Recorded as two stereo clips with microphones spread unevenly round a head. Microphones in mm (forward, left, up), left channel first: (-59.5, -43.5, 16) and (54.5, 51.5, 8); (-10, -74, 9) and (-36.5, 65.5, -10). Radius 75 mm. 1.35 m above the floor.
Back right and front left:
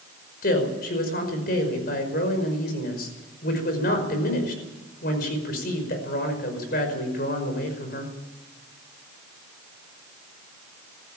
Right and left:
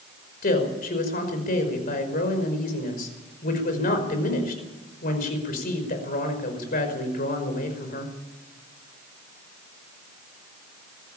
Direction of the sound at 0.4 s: 105° right.